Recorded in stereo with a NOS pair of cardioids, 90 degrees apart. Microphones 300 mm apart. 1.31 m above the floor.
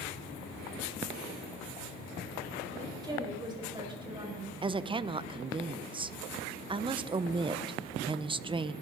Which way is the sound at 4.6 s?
15° right.